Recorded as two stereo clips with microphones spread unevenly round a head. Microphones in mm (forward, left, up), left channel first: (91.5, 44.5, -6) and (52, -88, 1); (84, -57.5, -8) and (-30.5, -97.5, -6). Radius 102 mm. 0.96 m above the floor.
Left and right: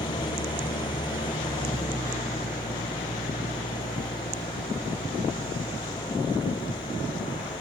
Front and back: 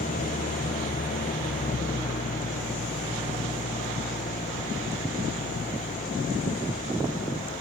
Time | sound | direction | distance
0.0 | an engine running | 15° left | ?